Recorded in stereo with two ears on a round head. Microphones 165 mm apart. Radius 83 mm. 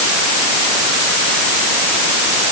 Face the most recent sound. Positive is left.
No sound to turn to.